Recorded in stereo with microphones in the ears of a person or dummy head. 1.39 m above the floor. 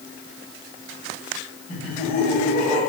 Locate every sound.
1.7 s laughter: 35° left (ahead or behind), 8 m